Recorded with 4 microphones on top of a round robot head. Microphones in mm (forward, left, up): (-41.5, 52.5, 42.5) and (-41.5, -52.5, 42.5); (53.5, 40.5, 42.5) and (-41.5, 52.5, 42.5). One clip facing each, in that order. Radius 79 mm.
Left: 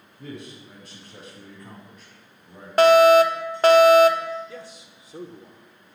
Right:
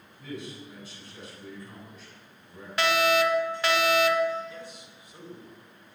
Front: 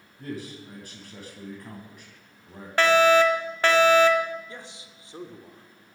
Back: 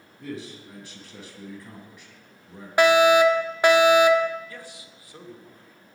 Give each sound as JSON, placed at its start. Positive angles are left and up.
{"t": 0.2, "sound": "a man speaking", "azimuth_deg": 40, "distance_m": 7.0}
{"t": 2.8, "sound": "a fire alarm", "azimuth_deg": 105, "distance_m": 1.5}
{"t": 4.5, "sound": "a man speaking", "azimuth_deg": 60, "distance_m": 2.5}